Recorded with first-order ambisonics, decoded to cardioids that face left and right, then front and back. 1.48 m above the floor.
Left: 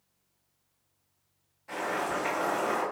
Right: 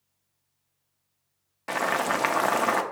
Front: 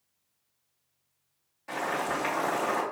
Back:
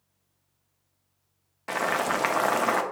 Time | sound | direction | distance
1.7 | boiling | 125° right | 0.5 m